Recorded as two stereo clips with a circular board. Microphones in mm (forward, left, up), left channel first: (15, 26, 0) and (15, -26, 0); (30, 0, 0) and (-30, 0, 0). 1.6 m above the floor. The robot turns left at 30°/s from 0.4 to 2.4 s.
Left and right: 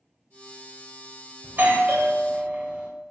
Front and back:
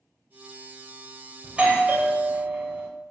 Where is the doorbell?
110° right, 0.7 m; by 2.9 s 140° right, 0.7 m.